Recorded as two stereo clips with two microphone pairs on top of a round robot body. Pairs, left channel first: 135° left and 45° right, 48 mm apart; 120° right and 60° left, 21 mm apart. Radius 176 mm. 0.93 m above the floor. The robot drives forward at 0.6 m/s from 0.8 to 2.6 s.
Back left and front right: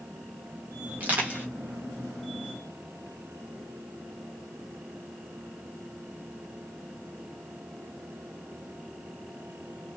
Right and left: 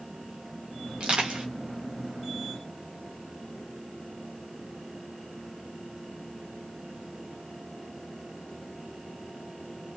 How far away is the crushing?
About 1.9 m.